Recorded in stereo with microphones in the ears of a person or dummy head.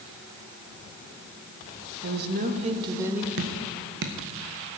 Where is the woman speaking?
60° right (ahead or behind), 1.3 m; by 3.3 s 5° right (ahead or behind), 1.4 m.